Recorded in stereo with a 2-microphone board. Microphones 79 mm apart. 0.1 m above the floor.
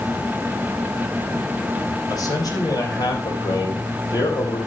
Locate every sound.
2.1 s a man speaking: 50° left (ahead or behind), 5 m; by 4.6 s 70° left (ahead or behind), 5 m